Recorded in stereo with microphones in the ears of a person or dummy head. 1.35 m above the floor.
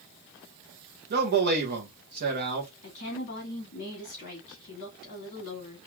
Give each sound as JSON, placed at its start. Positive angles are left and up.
{"t": 1.1, "sound": "a man speaking", "side_deg": -50, "distance_m": 1.2}
{"t": 2.8, "sound": "a woman speaking", "side_deg": 40, "distance_m": 2.5}